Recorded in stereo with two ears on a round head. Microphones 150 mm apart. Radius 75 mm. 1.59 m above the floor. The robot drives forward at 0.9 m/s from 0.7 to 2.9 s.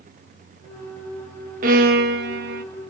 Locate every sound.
1.6 s a violin: 55° right (ahead or behind), 1.3 m; by 2.6 s 60° right (ahead or behind), 1.2 m